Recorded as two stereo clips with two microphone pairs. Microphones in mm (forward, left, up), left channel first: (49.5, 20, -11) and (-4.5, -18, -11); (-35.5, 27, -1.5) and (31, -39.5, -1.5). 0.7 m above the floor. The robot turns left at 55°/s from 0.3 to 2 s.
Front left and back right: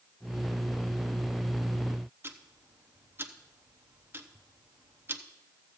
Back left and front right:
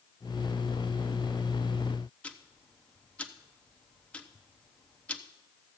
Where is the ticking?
160° right, 0.7 m.